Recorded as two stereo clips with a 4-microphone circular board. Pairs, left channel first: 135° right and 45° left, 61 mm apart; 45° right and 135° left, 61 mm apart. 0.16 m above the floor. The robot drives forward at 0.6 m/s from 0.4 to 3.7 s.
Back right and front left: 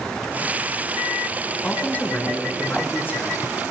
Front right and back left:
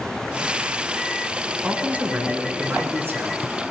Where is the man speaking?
Straight behind, 1.3 m.